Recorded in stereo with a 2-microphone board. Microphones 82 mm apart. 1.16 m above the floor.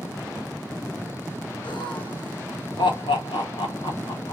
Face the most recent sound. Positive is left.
turn(degrees=80)